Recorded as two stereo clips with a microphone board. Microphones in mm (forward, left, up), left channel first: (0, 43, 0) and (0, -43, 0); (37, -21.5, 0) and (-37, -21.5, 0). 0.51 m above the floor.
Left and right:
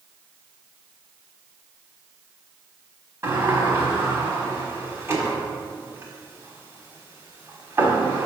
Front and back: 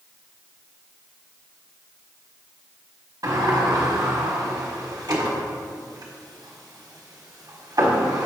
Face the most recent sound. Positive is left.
turn(degrees=-145)